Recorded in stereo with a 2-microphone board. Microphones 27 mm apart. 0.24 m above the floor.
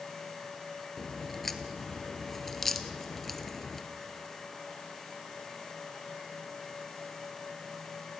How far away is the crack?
About 1.3 m.